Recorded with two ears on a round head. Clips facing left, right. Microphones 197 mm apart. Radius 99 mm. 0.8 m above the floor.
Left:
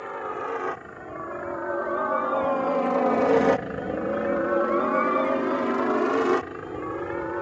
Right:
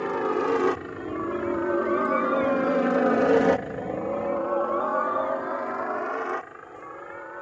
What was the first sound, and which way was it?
A helicopter, 60° right (ahead or behind).